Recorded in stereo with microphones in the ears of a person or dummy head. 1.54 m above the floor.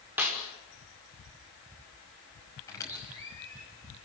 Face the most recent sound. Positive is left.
turn(degrees=15)  # may be behind; listen again after turning